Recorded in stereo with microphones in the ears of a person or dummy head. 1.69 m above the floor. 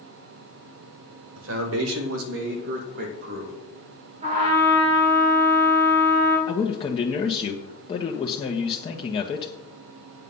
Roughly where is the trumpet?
Right.